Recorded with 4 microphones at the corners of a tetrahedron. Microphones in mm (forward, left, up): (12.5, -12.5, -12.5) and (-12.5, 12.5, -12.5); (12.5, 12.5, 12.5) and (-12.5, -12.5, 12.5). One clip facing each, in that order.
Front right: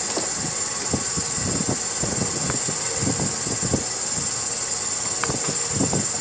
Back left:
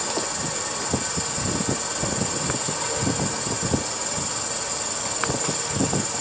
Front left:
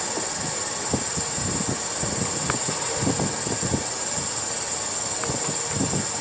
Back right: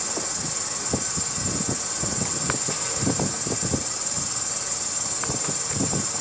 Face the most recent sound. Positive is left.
turn(degrees=95)